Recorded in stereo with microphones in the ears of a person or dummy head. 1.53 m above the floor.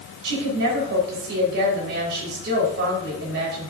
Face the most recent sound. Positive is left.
turn(degrees=-70)  # may be behind; listen again after turning